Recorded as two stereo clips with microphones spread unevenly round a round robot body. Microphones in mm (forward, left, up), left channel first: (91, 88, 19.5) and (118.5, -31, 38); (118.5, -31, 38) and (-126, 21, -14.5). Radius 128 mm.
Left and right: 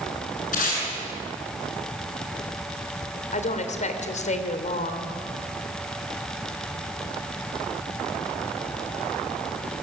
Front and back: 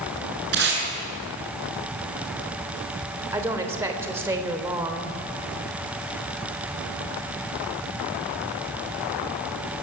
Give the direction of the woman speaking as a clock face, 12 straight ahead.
9 o'clock.